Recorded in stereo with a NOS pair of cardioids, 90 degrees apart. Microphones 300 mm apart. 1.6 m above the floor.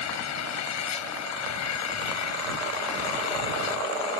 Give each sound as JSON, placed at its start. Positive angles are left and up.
{"t": 0.0, "sound": "an engine running", "azimuth_deg": 65}